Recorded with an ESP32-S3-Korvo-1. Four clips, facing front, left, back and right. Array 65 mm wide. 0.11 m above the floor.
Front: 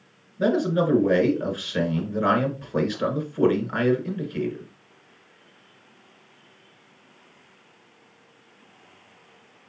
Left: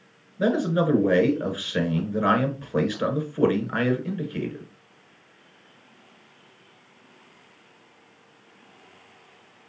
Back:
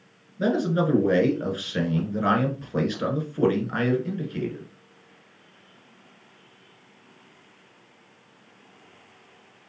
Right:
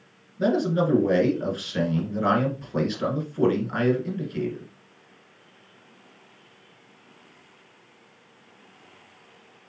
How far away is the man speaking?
About 1.2 m.